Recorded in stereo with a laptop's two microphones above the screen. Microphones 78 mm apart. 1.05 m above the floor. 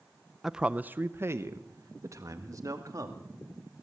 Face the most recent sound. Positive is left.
turn(degrees=-50)  # may be behind; listen again after turning